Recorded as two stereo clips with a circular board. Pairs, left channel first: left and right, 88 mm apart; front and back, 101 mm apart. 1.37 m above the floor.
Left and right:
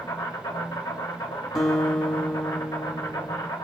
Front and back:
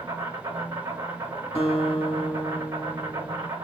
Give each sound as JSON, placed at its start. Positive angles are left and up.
{"t": 0.0, "sound": "an insect", "azimuth_deg": 130, "distance_m": 1.6}
{"t": 1.6, "sound": "a guitar", "azimuth_deg": 0, "distance_m": 2.0}